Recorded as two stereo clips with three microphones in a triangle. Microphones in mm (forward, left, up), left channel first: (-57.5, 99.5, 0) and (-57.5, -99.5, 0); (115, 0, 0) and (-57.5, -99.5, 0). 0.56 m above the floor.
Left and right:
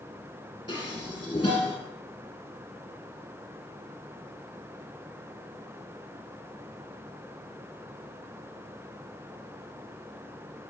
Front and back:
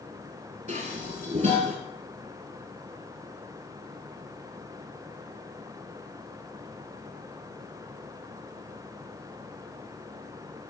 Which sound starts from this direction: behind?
Dishes clattering, at 0.7 s.